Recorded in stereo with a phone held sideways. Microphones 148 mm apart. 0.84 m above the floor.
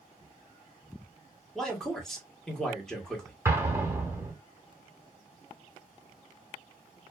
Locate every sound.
1.6 s a man speaking: 5° left (ahead or behind), 1.1 m
3.5 s an explosion: 20° right (ahead or behind), 0.9 m